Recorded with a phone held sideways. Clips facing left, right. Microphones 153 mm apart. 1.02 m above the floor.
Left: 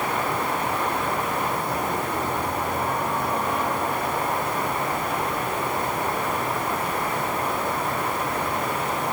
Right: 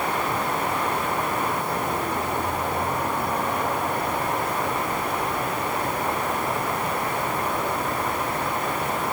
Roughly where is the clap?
No clap in this recording.